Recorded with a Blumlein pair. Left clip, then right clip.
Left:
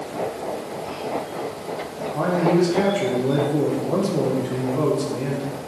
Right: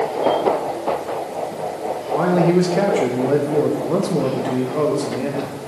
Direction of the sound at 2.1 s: 15° right.